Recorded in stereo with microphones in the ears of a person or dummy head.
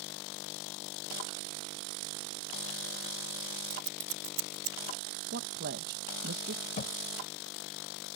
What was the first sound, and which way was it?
Scissors, 85° right.